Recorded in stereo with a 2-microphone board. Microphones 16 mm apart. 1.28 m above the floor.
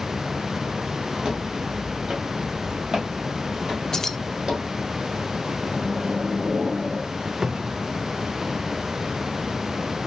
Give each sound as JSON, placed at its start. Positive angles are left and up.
{"t": 1.2, "sound": "footsteps", "side_deg": -50, "distance_m": 1.8}
{"t": 3.9, "sound": "keys jangling", "side_deg": 30, "distance_m": 0.5}
{"t": 5.6, "sound": "a microwave", "side_deg": -75, "distance_m": 1.9}
{"t": 7.4, "sound": "a cupboard door", "side_deg": -45, "distance_m": 0.5}